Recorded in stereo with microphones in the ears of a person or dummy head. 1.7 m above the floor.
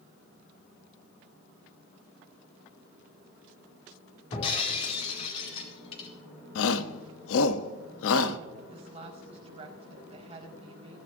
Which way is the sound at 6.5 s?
75° left (ahead or behind).